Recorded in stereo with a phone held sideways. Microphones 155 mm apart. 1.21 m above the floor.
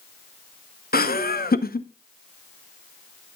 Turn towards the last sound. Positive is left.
turn(degrees=75)  # may be behind; listen again after turning